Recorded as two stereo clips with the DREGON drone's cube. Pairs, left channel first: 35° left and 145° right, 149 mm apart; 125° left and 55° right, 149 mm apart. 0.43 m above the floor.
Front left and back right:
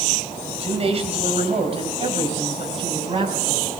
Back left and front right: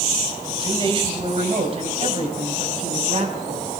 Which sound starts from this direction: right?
A man speaking, at 0.5 s.